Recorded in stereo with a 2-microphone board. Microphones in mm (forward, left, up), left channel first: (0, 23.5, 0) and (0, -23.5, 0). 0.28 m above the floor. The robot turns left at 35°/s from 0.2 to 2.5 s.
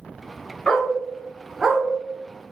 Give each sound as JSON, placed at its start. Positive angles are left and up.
{"t": 0.7, "sound": "a dog barking", "side_deg": 20, "distance_m": 0.8}